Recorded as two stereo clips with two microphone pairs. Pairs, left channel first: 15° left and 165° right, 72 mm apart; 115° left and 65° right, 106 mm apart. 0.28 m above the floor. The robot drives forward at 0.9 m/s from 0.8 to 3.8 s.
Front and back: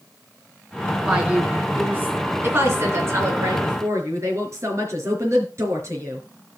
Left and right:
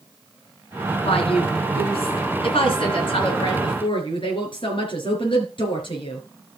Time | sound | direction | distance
1.0 | a woman speaking | 120° left | 2.5 m